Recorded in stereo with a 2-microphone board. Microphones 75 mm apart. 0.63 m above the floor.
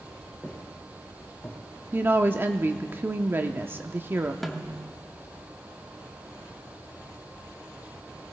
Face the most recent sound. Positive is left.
turn(degrees=0)  # may be behind; listen again after turning